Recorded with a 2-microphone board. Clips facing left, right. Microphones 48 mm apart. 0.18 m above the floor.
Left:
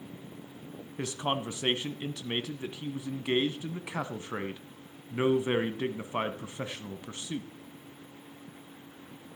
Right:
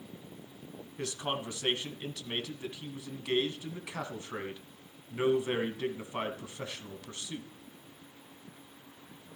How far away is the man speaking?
About 1.3 m.